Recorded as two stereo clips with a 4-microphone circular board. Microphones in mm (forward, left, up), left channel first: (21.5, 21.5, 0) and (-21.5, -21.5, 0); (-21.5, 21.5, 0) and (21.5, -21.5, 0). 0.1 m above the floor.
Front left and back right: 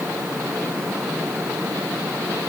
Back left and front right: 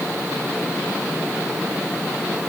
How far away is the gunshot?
No gunshot in this recording.